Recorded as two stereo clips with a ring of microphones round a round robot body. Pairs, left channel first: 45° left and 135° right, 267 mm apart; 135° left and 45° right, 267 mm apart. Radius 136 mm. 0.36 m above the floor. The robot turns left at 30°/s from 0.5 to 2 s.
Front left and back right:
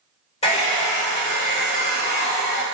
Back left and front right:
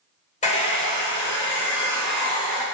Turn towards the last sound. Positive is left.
turn(degrees=50)